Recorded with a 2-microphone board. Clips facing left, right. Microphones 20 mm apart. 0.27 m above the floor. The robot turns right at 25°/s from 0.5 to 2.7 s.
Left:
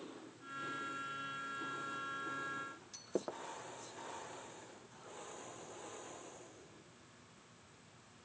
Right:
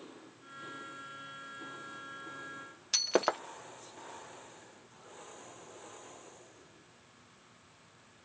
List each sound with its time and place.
2.9 s breaking glass: 70° right (ahead or behind)